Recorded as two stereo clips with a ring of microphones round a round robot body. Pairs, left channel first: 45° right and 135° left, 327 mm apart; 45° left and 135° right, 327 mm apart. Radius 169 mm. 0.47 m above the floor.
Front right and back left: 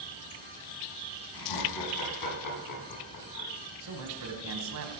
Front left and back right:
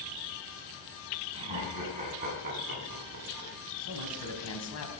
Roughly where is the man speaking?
Left.